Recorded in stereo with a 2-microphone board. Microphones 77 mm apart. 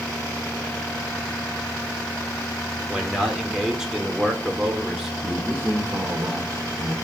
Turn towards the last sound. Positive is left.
turn(degrees=-30)  # may be behind; listen again after turning